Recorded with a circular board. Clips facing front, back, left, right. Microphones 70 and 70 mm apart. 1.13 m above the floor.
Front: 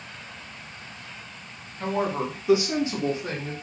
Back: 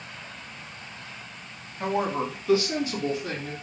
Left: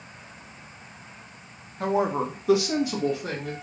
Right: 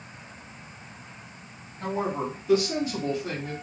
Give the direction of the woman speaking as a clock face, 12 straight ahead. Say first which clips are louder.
Even, left 4 dB; 9 o'clock.